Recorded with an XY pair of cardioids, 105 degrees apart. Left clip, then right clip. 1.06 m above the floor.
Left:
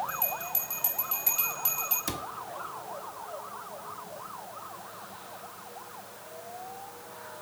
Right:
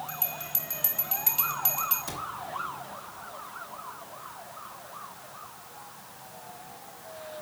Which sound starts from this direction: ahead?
A bell, at 0.1 s.